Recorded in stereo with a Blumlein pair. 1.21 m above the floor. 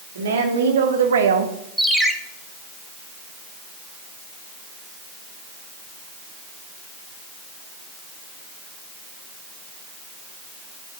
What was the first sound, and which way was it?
A woman speaking, 65° right.